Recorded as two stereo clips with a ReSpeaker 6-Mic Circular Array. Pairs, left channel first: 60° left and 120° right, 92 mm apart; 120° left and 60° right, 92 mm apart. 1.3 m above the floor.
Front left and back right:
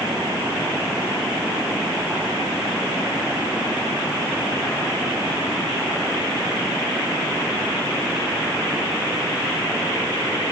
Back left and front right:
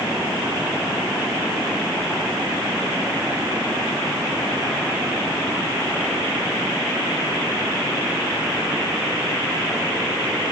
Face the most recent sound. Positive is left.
No sound to turn to.